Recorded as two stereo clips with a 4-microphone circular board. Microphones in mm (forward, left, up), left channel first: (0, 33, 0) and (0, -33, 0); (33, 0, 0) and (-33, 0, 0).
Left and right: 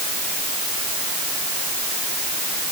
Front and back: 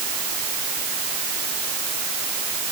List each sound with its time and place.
Only background noise.